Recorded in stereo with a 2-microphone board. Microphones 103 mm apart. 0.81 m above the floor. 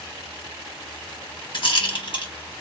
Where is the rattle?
55° left (ahead or behind), 1.8 m.